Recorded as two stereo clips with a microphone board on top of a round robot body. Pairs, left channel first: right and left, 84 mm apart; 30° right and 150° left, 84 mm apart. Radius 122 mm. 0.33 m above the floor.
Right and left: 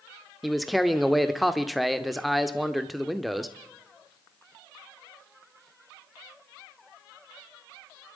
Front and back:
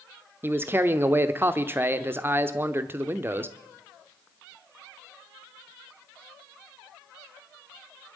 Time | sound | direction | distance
0.4 | a man speaking | straight behind | 0.9 m